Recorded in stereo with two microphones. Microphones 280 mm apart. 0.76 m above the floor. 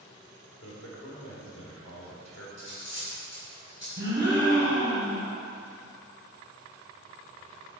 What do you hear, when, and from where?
0.6 s a man speaking: 75° left (ahead or behind), 2.5 m
2.6 s cutlery clinking: 60° left (ahead or behind), 3 m
4.0 s a gasp: 45° right (ahead or behind), 3 m